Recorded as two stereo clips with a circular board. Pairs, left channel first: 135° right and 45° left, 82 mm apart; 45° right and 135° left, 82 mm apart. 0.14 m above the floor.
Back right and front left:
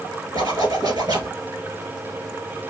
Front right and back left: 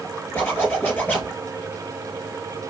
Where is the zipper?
20° left, 2.5 m.